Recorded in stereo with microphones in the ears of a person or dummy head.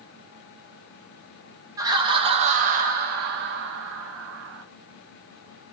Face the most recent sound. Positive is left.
turn(degrees=-70)  # may be behind; listen again after turning